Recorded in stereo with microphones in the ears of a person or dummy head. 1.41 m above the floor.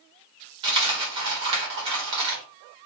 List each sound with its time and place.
0.6 s a dropped coin: 30° right (ahead or behind), 1.2 m